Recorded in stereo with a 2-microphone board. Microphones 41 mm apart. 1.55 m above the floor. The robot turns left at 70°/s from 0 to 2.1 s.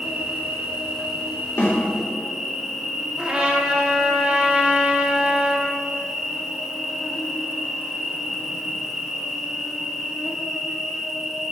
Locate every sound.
0.0 s an insect: 25° right, 0.9 m; by 11.5 s 170° right, 0.9 m
1.6 s a snare drum: 80° left, 3 m; by 1.8 s 75° left (ahead or behind), 3 m
3.2 s a trumpet: 25° right (ahead or behind), 1.3 m